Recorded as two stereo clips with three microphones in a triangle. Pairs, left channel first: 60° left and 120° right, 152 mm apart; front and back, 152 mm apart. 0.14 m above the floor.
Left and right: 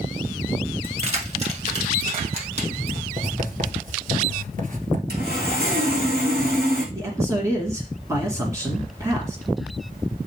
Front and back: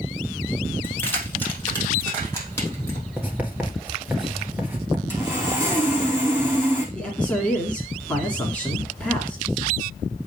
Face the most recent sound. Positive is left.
turn(degrees=-75)